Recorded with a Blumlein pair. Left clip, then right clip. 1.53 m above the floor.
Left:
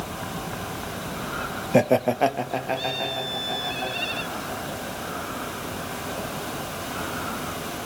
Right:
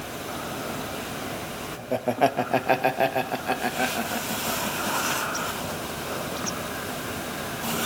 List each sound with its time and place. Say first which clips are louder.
1.7 s laughter: left 6 dB; 50° left, 0.5 m; by 6.7 s 35° right, 6 m